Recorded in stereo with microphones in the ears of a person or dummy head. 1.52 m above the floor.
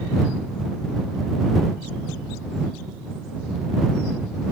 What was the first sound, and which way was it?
Only background noise.